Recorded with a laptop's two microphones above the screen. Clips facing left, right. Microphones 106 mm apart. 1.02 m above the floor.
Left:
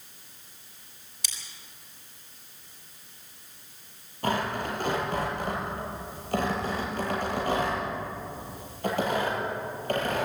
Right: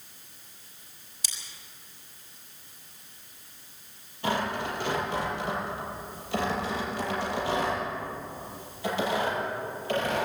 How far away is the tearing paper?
About 8.5 m.